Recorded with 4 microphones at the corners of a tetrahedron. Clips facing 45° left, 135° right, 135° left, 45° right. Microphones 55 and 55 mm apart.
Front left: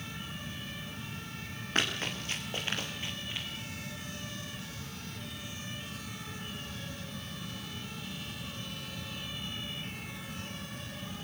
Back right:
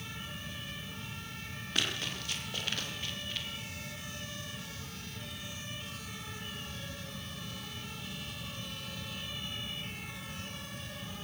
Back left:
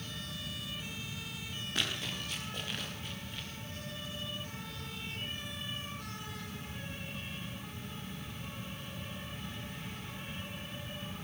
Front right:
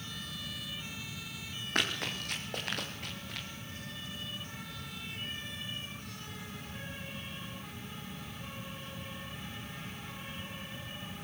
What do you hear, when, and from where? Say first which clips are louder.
1.8 s running footsteps: front left 3 dB, front right 4 dB; 10° right, 7 m; by 3.5 s 25° right, 6 m